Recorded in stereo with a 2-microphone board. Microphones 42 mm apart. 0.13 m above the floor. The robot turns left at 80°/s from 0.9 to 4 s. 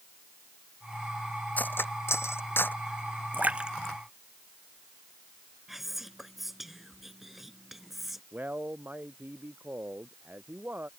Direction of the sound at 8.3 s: 45° right (ahead or behind).